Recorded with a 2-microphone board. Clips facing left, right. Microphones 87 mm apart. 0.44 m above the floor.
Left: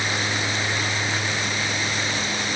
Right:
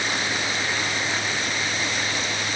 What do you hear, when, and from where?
Only background noise.